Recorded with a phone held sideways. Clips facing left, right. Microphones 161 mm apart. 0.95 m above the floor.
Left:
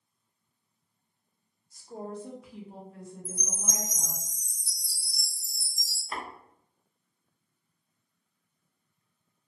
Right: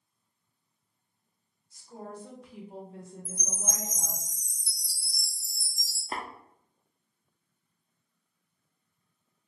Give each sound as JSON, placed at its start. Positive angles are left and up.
{"t": 1.7, "sound": "a woman speaking", "side_deg": 40, "distance_m": 0.8}
{"t": 3.2, "sound": "a chime", "side_deg": 45, "distance_m": 0.6}
{"t": 6.1, "sound": "tapping", "side_deg": -40, "distance_m": 0.5}